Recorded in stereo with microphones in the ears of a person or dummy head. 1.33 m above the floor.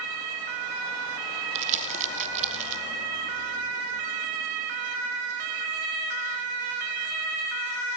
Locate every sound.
1.6 s crumpling: 40° right (ahead or behind), 0.6 m